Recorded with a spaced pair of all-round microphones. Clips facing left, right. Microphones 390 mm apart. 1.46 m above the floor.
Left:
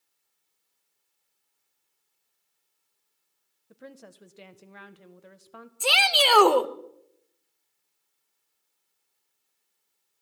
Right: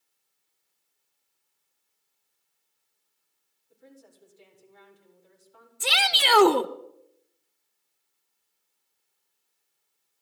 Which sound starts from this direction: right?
A shout, at 5.8 s.